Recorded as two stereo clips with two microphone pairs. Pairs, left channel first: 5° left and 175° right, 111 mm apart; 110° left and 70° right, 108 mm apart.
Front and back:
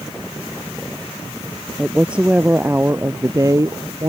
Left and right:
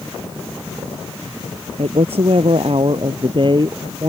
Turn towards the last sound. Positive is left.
turn(degrees=-120)